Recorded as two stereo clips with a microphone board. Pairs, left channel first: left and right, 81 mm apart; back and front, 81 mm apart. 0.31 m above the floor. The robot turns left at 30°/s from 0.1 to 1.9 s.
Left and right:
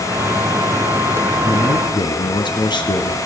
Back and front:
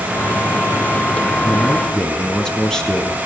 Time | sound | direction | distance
1.4 | a man speaking | 115° left | 3.5 m